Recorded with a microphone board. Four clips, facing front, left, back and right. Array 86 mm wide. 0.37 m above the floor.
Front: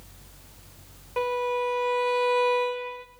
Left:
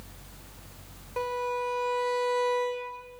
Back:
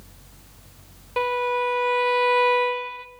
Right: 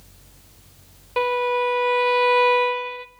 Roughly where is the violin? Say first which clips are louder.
Right 9 dB, back 3 dB; behind right.